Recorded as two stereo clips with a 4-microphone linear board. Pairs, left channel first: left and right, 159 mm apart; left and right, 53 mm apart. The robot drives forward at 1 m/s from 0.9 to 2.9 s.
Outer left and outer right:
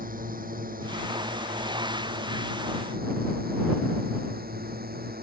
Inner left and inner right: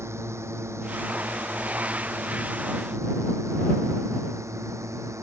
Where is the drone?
60° right (ahead or behind); by 5.2 s 75° right (ahead or behind).